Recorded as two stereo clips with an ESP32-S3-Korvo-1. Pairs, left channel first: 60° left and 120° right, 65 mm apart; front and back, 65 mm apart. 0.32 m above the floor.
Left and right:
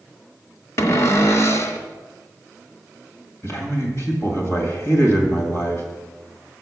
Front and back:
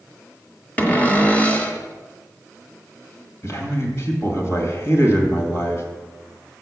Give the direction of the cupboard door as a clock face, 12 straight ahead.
10 o'clock.